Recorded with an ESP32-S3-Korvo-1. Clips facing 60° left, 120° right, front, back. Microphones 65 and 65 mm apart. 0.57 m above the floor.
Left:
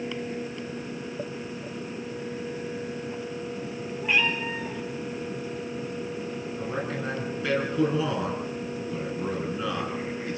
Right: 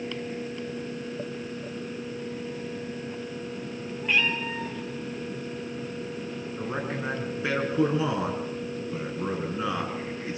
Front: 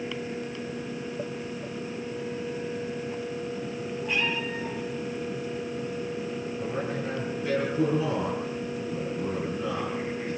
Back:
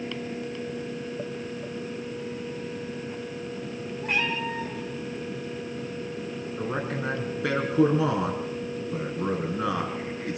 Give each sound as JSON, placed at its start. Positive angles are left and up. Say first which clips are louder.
{"t": 4.0, "sound": "a cat meowing", "louder": "left 1 dB, back 2 dB", "azimuth_deg": 145, "distance_m": 3.5}
{"t": 6.6, "sound": "a man speaking", "louder": "even, back 3 dB", "azimuth_deg": 170, "distance_m": 5.5}